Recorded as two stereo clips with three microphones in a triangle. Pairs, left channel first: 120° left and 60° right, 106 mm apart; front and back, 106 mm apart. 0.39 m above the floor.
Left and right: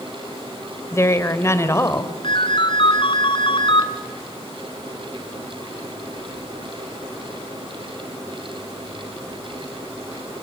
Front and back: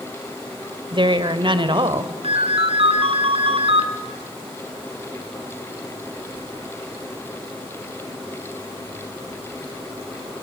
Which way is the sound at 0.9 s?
175° left.